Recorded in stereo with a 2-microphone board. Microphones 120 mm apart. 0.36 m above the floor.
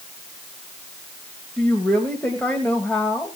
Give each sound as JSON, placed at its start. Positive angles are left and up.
{"t": 1.6, "sound": "a woman speaking", "side_deg": 10, "distance_m": 1.9}